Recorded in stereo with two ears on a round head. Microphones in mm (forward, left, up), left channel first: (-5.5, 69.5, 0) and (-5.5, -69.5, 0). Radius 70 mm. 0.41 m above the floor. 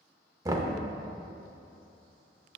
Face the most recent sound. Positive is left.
turn(degrees=-20)  # may be behind; listen again after turning